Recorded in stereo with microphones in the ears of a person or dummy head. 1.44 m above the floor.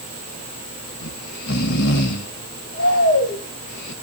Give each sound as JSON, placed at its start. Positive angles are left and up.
{"t": 1.0, "sound": "snoring", "side_deg": 65, "distance_m": 1.3}